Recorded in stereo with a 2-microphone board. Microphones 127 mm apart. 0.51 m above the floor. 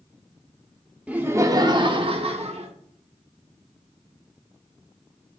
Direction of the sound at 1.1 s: 10° right (ahead or behind).